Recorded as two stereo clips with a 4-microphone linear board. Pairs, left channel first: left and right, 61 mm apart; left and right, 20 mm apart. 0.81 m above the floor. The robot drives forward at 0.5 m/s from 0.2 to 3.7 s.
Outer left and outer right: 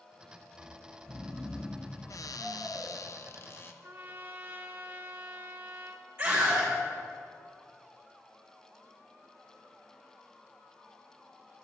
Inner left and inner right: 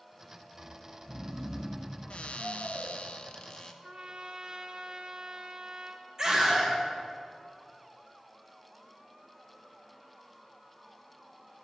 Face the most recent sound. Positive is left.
turn(degrees=-25)  # may be behind; listen again after turning